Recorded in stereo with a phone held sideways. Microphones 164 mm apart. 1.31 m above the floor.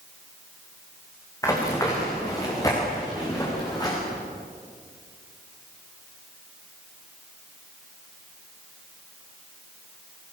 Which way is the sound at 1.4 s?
20° left (ahead or behind).